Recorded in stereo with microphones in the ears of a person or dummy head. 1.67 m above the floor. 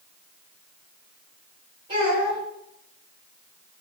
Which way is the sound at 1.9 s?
25° right (ahead or behind).